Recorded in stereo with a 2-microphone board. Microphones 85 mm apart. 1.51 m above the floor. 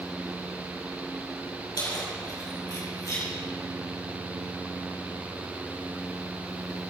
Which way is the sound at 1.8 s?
50° left (ahead or behind).